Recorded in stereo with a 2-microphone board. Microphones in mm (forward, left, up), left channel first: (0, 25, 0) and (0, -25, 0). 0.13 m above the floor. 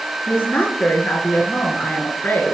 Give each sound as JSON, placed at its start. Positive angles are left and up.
{"t": 0.3, "sound": "a woman speaking", "side_deg": 35, "distance_m": 1.6}